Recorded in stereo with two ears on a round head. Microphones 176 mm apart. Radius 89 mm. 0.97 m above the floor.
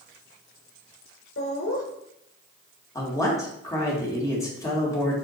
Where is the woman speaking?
20° left (ahead or behind), 2 m.